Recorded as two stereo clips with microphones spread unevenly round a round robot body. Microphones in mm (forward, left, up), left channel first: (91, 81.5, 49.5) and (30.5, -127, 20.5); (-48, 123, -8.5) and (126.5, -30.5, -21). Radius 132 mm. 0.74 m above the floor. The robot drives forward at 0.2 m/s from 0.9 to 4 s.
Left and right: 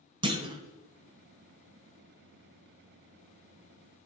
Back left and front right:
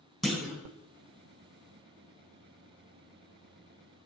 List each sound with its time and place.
0.2 s a clunk: 125° right, 1.1 m